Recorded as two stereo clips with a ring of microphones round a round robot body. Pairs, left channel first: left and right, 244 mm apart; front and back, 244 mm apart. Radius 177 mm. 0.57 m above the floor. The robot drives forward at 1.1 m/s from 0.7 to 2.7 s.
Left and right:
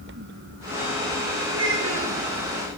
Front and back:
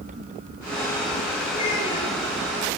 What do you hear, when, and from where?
1.5 s a child speaking: 75° right, 7 m; by 2.2 s 80° right, 7 m